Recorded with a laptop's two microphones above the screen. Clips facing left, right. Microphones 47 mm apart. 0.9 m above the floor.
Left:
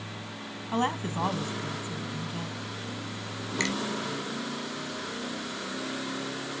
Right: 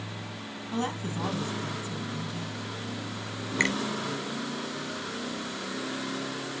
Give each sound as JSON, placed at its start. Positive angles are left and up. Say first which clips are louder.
{"t": 0.7, "sound": "a woman speaking", "louder": "left 3 dB", "side_deg": 35, "distance_m": 0.9}
{"t": 3.6, "sound": "a finger snap", "louder": "right 4 dB", "side_deg": -35, "distance_m": 2.5}